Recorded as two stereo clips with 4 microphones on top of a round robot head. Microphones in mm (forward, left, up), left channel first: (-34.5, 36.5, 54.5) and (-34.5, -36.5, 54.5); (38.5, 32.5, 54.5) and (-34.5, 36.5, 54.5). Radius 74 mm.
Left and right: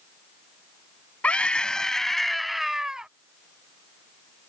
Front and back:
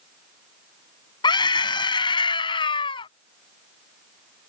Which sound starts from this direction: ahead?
A scream, at 1.2 s.